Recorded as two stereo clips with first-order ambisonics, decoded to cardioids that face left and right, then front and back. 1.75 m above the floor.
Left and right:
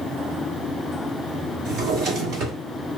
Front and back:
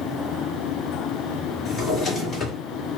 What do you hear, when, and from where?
1.6 s a drawer: 60° right, 1.6 m